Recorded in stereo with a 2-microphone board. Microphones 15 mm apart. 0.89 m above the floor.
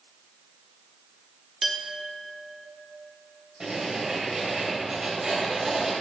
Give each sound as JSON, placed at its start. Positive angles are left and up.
{"t": 1.6, "sound": "a clink", "side_deg": -25, "distance_m": 1.2}
{"t": 3.6, "sound": "writing", "side_deg": -35, "distance_m": 4.0}